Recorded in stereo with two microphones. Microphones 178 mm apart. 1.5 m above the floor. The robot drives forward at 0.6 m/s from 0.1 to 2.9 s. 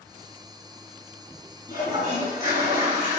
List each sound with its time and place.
1.7 s a toilet flushing: 20° right (ahead or behind), 2.5 m; by 3.2 s 15° right (ahead or behind), 3 m